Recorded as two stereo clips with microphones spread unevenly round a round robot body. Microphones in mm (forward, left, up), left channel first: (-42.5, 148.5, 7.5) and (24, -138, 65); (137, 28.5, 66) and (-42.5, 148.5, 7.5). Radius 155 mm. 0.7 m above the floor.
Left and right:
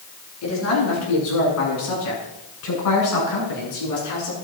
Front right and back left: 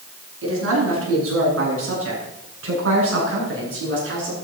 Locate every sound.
0.4 s a man speaking: 135° left, 8.5 m; by 4.3 s 125° left, 9.5 m